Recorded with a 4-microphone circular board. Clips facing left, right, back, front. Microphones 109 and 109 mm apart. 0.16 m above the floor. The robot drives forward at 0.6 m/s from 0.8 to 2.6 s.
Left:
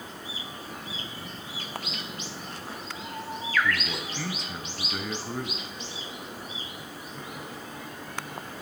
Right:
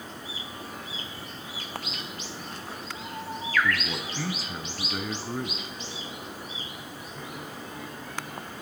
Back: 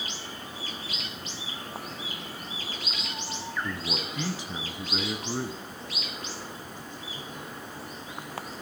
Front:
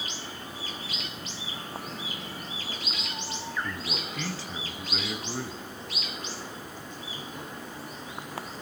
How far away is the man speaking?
About 1.1 m.